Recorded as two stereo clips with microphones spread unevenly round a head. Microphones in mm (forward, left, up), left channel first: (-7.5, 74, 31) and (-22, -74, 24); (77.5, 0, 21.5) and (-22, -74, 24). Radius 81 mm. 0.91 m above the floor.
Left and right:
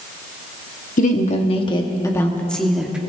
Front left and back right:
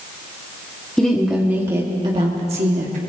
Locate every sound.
1.0 s a woman speaking: 120° left, 1.7 m; by 3.0 s straight behind, 1.7 m